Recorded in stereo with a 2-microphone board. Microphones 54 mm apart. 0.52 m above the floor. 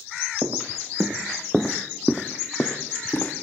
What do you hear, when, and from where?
0.4 s footsteps: 55° right (ahead or behind), 1.4 m; by 3.3 s 45° left (ahead or behind), 2.5 m